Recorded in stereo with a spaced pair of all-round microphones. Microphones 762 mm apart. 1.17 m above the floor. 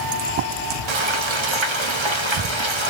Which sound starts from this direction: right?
Frying, at 0.9 s.